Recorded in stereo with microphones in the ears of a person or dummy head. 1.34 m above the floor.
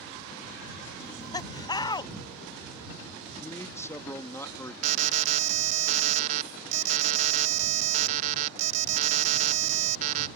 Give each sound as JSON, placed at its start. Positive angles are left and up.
{"t": 1.0, "sound": "laughter", "side_deg": 20}
{"t": 3.4, "sound": "a man speaking", "side_deg": 15}
{"t": 4.8, "sound": "an alarm", "side_deg": -40}